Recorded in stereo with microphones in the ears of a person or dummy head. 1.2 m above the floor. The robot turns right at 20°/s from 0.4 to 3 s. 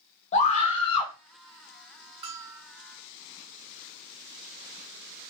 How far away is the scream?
About 0.7 m.